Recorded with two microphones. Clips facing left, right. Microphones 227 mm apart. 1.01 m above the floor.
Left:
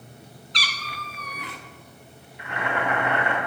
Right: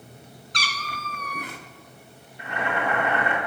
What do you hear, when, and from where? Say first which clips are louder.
0.5 s a cat meowing: right 2 dB; 45° right (ahead or behind), 0.6 m
2.4 s boiling: even; 35° right (ahead or behind), 1.9 m